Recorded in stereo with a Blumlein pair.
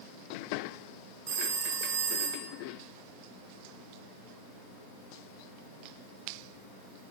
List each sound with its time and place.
1.3 s a phone ringing: 65° right, 3.5 m